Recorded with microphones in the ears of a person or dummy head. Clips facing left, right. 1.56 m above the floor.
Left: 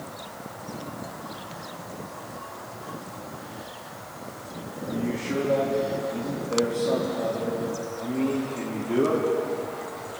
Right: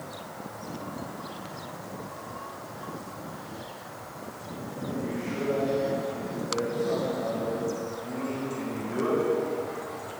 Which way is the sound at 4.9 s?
80° left.